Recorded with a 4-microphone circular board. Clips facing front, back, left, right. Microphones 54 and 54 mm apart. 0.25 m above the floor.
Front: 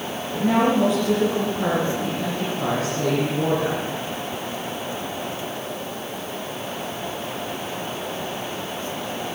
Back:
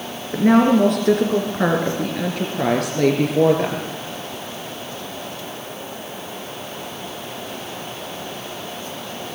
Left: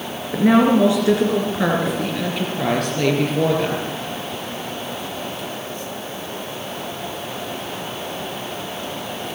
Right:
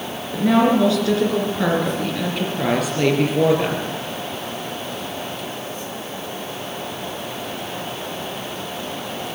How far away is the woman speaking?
About 3 m.